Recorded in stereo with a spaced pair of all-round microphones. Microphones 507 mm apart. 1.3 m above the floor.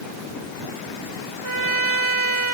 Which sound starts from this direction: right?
A trumpet, at 1.4 s.